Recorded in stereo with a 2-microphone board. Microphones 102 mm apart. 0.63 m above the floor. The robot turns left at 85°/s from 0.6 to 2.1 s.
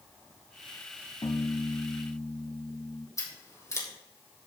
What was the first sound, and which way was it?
A piano, 105° left.